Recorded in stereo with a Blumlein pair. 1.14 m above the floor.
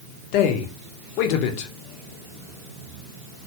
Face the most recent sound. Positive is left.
turn(degrees=45)